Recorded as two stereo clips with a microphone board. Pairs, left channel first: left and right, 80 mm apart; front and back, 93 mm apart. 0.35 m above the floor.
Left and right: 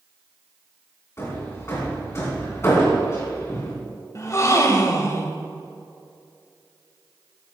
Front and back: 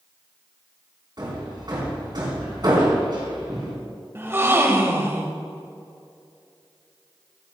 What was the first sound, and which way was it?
Hammering, 145° left.